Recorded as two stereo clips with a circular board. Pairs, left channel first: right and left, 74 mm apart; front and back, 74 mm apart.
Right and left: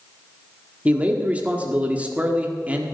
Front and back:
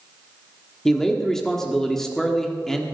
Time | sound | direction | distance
0.8 | a man speaking | 70° left | 1.3 m